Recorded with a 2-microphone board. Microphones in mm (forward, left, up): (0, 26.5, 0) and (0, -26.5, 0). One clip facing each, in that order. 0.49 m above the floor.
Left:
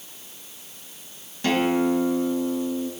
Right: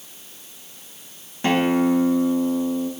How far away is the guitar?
About 1.3 m.